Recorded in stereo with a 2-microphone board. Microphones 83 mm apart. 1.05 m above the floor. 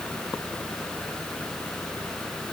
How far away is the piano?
I don't hear a piano.